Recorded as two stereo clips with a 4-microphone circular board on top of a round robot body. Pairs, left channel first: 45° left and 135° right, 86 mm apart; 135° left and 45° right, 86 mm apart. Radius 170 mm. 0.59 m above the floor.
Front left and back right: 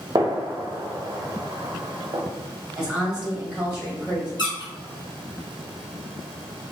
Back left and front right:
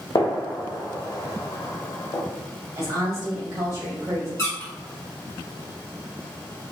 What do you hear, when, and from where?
0.1 s a gunshot: straight behind, 0.6 m
2.8 s a woman speaking: 60° right, 1.6 m
4.4 s a squeak: 80° left, 1.2 m